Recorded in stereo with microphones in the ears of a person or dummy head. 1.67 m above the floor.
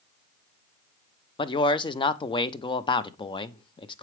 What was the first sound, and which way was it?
A man speaking, 35° left (ahead or behind).